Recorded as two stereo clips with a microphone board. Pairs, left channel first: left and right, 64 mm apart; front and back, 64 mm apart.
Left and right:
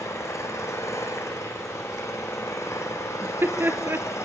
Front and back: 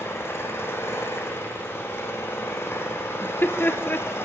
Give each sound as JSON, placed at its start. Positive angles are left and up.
{"t": 0.0, "sound": "an engine running", "azimuth_deg": 50, "distance_m": 5.0}
{"t": 3.2, "sound": "laughter", "azimuth_deg": -50, "distance_m": 2.5}